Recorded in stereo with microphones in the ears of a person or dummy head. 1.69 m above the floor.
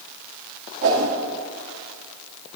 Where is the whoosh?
55° right (ahead or behind), 1.6 m.